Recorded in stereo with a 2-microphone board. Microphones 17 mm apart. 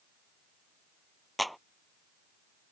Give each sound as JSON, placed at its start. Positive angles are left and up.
{"t": 1.4, "sound": "a clap", "side_deg": 5}